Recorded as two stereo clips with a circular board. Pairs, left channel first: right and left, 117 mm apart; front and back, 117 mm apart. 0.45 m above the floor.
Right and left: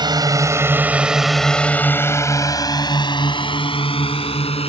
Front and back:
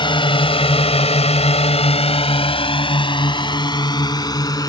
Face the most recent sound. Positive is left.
turn(degrees=-55)